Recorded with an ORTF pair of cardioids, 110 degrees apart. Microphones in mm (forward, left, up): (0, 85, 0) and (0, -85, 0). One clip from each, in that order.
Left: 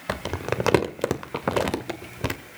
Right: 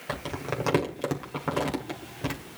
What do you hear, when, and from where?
0.1 s crumpling: 40° left, 1.8 m